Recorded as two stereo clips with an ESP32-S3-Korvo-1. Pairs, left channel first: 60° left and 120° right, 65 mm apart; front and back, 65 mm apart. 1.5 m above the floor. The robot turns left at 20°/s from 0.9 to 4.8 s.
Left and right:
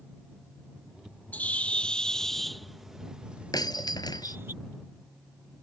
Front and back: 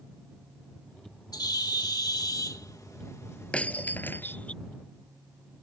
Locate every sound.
1.3 s a bird: 5° right; by 4.5 s 70° right
3.5 s breaking glass: 75° left; by 4.4 s 55° left